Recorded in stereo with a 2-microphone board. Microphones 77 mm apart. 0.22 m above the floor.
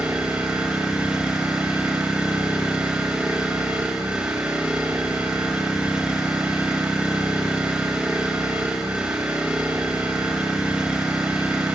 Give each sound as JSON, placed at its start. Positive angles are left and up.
{"t": 0.0, "sound": "an engine running", "side_deg": -15, "distance_m": 8.0}